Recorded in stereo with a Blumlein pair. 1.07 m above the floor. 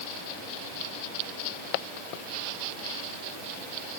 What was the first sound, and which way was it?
Only background noise.